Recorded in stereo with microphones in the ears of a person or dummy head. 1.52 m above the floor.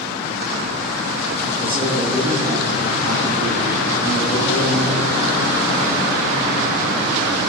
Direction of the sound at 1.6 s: 10° right (ahead or behind).